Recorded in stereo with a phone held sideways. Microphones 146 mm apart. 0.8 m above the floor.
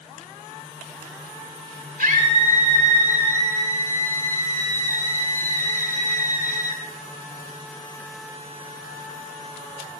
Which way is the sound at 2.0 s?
85° right.